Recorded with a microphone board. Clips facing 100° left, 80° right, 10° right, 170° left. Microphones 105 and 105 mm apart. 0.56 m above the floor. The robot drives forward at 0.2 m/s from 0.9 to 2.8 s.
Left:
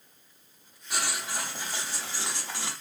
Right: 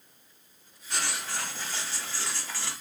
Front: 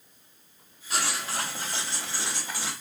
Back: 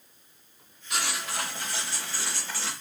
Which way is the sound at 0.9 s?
25° left.